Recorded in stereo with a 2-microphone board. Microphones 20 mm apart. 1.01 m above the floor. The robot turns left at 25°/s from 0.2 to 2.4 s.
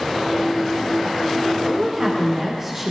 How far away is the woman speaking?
About 3 m.